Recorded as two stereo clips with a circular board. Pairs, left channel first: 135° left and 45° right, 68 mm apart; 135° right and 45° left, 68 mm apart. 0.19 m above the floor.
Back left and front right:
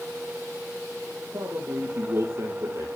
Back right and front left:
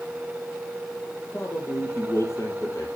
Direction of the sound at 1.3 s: 90° right.